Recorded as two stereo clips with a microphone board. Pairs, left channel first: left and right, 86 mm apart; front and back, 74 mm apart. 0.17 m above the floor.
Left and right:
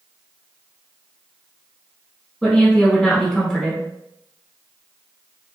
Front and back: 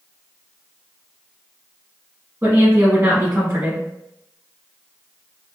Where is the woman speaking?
170° left, 1.2 m.